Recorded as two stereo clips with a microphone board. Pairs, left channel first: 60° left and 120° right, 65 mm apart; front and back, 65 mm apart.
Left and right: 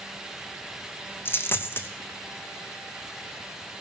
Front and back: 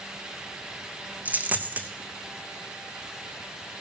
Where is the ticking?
No ticking in this recording.